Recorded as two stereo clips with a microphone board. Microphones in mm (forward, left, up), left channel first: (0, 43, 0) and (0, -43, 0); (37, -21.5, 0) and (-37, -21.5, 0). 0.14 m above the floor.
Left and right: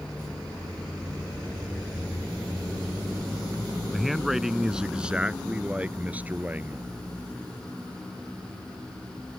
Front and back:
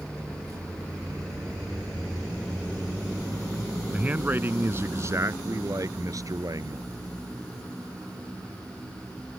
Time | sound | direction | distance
3.9 | a man speaking | 175° left | ?